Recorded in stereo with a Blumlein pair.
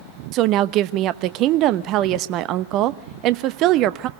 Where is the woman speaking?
35° right, 0.9 m.